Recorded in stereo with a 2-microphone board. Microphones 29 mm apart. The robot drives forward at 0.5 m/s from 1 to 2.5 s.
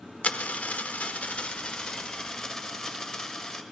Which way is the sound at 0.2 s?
60° left (ahead or behind).